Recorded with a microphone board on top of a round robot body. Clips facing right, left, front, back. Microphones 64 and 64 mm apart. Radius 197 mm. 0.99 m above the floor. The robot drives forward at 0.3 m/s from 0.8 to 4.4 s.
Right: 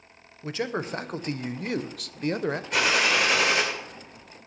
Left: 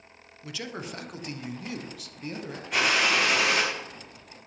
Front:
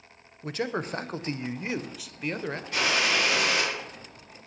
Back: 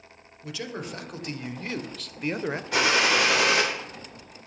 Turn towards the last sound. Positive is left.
turn(degrees=180)